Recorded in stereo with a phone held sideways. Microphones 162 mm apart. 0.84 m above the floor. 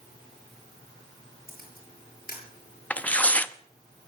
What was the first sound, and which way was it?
A camera shutter, 60° left (ahead or behind).